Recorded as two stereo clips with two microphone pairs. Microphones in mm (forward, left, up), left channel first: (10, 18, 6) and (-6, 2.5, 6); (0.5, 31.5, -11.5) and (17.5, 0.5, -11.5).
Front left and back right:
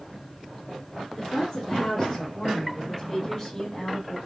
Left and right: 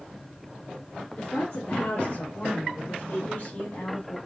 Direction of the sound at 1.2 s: 135° left.